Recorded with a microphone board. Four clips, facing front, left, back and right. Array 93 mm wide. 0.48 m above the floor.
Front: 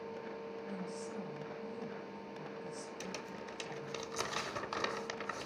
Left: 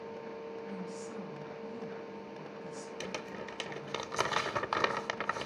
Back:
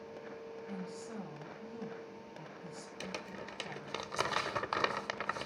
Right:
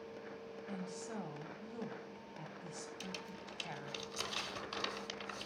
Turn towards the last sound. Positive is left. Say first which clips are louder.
# left 7 dB, even
turn(degrees=115)